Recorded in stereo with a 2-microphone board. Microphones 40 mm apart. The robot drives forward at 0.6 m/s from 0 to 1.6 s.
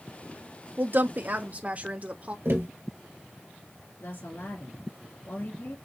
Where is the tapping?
80° right, 3 m.